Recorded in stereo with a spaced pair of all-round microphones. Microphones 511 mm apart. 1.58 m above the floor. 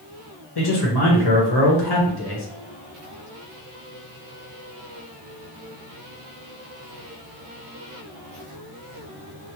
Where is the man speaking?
50° left (ahead or behind), 1.0 m.